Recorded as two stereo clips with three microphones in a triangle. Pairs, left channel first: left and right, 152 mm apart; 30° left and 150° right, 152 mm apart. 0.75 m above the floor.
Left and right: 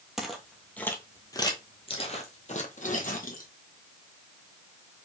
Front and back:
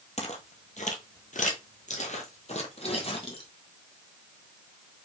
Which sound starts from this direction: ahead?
Footsteps, at 0.2 s.